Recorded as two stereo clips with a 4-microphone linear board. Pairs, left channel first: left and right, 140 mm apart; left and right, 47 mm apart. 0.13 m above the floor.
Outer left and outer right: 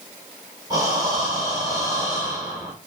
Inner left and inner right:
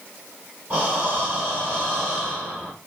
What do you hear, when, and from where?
0.7 s breathing: 25° right (ahead or behind), 2.0 m